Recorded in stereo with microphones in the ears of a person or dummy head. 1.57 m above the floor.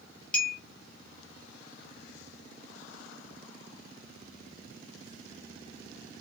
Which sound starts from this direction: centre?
A clink, at 0.3 s.